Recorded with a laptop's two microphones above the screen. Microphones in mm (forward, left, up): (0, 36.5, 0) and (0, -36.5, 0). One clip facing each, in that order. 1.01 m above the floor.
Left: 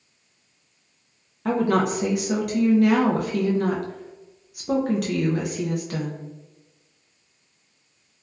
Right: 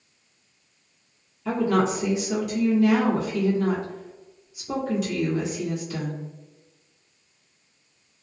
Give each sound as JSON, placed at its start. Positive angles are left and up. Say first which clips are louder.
{"t": 1.4, "sound": "a woman speaking", "louder": "left 1 dB", "side_deg": 60, "distance_m": 0.5}